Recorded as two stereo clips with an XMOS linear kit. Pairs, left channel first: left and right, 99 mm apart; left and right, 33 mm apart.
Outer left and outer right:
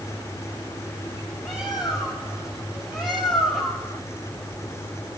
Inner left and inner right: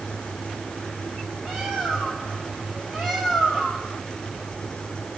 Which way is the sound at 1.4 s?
5° right (ahead or behind).